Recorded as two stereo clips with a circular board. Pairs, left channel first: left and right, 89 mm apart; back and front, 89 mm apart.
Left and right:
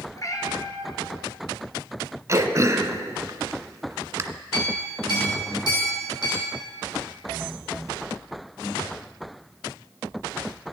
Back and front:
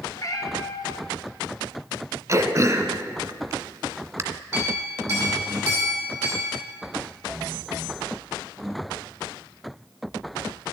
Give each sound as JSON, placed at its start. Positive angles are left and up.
{"t": 0.1, "sound": "a cat meowing", "azimuth_deg": 135, "distance_m": 1.3}
{"t": 2.3, "sound": "throat clearing", "azimuth_deg": -45, "distance_m": 0.7}
{"t": 4.5, "sound": "a clink", "azimuth_deg": 60, "distance_m": 4.5}